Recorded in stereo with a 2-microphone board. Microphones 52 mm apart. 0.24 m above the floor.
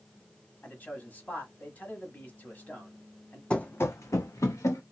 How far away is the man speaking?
About 1.2 m.